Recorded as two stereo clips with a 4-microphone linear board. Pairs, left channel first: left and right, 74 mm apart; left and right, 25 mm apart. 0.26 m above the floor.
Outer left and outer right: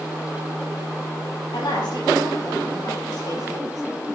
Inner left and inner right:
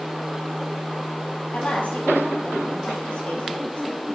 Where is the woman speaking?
80° left, 5.5 m; by 4.1 s 45° left (ahead or behind), 5.5 m.